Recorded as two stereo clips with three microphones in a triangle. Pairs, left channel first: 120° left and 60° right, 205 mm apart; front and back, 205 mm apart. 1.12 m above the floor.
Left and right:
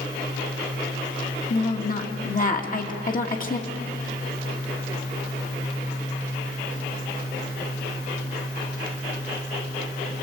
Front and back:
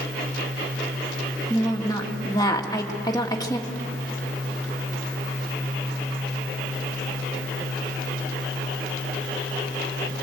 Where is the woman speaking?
75° left, 1.9 m.